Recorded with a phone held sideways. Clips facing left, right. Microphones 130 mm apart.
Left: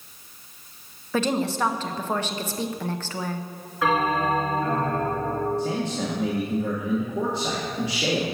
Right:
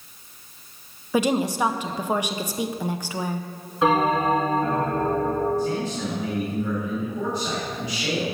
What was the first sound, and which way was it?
A woman speaking, 10° right (ahead or behind).